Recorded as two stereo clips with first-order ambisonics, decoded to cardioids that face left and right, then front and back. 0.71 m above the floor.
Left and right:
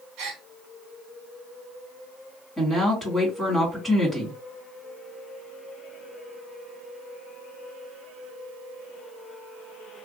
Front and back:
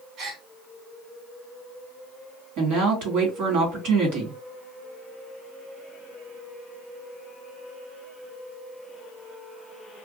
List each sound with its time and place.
0.2 s a gasp: 130° right, 1.3 m
2.6 s a woman speaking: 175° right, 1.8 m